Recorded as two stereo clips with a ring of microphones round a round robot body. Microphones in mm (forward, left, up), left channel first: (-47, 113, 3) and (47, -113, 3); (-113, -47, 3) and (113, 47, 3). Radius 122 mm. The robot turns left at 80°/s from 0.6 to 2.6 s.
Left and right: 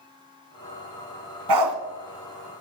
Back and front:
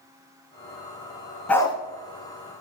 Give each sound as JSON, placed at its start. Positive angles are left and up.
{"t": 1.5, "sound": "a dog barking", "azimuth_deg": -70, "distance_m": 1.2}